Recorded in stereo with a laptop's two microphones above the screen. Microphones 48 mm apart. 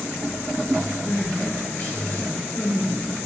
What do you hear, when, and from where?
1.1 s crying: 60° left (ahead or behind), 2.5 m